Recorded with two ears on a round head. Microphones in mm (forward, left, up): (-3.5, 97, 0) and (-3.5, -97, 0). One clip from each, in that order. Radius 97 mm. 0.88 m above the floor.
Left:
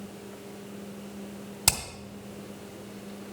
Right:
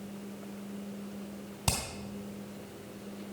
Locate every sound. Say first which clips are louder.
1.7 s hammering: left 6 dB; 50° left (ahead or behind), 2.5 m